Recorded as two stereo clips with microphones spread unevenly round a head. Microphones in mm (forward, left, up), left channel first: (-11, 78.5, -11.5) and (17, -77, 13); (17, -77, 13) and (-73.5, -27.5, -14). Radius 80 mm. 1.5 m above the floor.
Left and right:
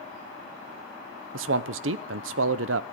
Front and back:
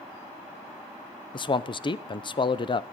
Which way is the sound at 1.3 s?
70° right.